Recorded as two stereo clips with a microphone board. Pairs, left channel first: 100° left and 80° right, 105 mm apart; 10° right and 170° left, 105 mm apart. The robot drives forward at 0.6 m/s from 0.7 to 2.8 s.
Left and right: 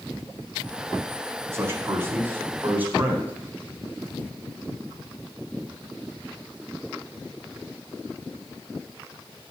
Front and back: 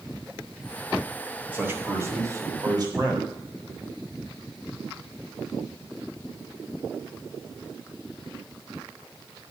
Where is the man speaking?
125° right, 1.6 m; by 3.3 s 150° right, 2 m.